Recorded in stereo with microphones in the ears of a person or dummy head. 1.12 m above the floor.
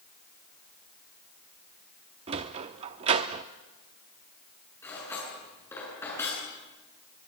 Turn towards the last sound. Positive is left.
turn(degrees=15)  # may be behind; listen again after turning